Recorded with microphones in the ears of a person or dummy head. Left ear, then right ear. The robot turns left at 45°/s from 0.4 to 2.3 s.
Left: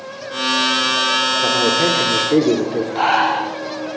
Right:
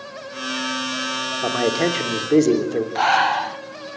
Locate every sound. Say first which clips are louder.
1.4 s a man speaking: left 5 dB; 105° right, 3.5 m; by 2.9 s 145° right, 3.5 m
3.0 s breathing: left 1 dB; 15° right (ahead or behind), 0.7 m